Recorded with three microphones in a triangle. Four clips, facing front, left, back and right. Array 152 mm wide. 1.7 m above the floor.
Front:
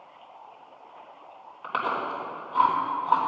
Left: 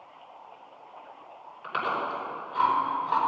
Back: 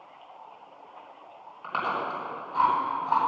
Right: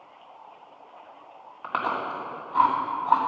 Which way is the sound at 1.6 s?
80° right.